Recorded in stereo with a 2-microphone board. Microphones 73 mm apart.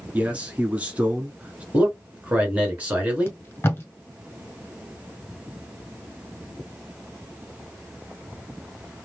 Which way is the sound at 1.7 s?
20° right (ahead or behind).